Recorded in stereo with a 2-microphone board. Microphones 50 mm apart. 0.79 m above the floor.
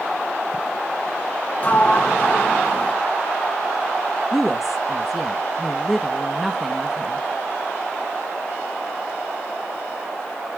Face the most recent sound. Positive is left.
turn(degrees=0)  # may be behind; listen again after turning